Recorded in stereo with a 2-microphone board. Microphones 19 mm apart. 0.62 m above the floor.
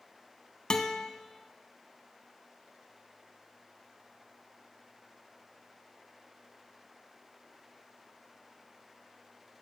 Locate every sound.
0.7 s a guitar: 40° left (ahead or behind), 1.2 m